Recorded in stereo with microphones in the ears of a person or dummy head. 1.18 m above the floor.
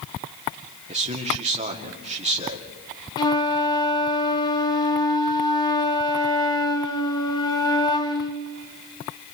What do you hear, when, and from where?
0.9 s a man speaking: 30° right (ahead or behind), 2.5 m
3.2 s a flute: 25° left (ahead or behind), 1.3 m